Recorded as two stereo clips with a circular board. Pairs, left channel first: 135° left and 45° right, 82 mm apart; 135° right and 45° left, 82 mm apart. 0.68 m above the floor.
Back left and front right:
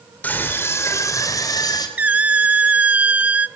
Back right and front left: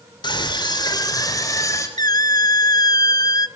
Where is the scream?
155° right, 3 m; by 1.9 s 175° left, 4 m.